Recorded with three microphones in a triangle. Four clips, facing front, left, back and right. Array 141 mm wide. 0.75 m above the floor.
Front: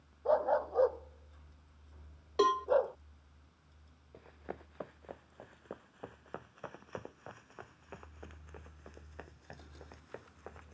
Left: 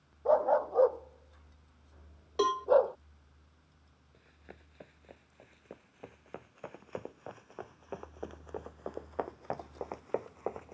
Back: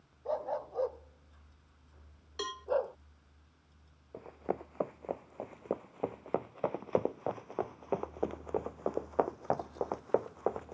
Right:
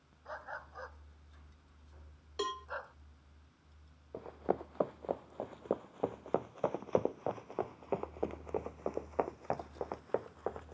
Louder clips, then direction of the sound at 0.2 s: Left 20 dB, front 6 dB; 75° left.